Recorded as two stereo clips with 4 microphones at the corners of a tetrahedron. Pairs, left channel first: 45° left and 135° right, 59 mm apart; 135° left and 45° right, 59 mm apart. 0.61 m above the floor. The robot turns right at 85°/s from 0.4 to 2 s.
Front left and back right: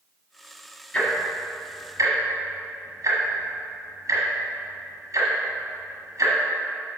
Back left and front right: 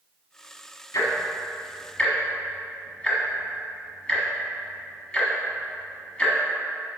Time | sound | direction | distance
0.9 | ticking | 110° left | 1.4 m